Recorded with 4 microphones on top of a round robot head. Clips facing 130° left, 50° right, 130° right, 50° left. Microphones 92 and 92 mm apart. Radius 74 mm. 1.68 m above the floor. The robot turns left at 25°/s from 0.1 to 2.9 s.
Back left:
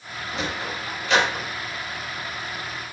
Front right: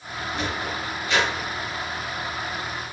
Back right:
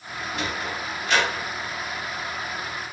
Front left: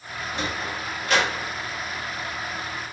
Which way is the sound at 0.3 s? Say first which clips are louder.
Even, even; 120° left.